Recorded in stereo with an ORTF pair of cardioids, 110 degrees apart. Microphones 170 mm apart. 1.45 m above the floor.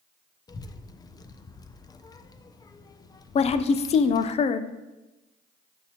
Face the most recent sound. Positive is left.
turn(degrees=40)